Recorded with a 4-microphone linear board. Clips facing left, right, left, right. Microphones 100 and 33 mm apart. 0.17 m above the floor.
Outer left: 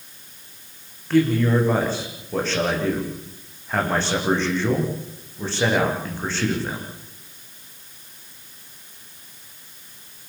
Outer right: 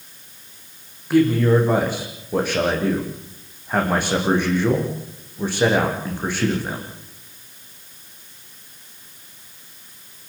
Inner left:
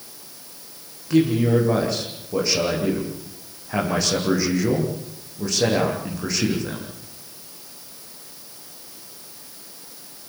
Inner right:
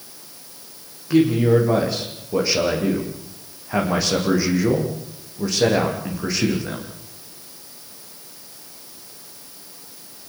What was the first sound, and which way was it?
A man speaking, 15° right (ahead or behind).